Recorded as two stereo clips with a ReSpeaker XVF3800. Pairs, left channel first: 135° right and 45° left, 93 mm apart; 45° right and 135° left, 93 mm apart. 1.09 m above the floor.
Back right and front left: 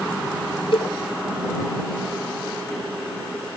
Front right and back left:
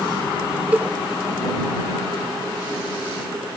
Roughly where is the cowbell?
Behind right.